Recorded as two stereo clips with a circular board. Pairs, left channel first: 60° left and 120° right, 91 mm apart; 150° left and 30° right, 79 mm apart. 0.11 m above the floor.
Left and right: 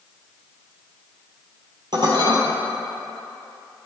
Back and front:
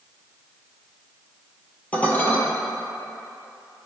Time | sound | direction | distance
1.9 | dishes clattering | 145° right | 1.6 m